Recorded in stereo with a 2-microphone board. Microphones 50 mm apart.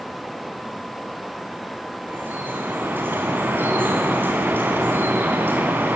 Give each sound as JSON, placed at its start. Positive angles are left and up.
{"t": 2.1, "sound": "dripping", "side_deg": -45, "distance_m": 5.0}